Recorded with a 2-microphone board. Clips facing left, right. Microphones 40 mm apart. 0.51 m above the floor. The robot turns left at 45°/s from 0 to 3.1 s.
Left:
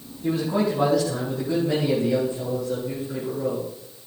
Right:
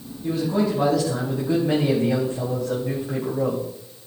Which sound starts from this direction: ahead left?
A man speaking, at 0.2 s.